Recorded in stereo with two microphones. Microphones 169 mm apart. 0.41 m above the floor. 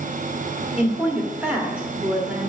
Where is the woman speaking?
5° right (ahead or behind), 1.3 m.